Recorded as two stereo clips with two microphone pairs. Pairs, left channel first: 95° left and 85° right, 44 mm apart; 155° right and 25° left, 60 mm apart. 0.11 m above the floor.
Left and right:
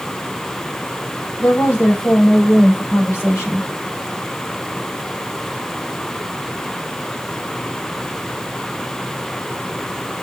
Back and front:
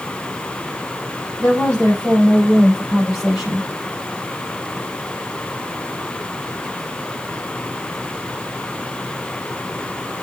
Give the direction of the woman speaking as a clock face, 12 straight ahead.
8 o'clock.